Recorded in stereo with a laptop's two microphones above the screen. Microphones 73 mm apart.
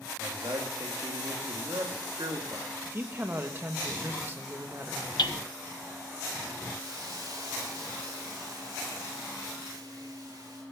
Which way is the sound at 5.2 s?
85° left.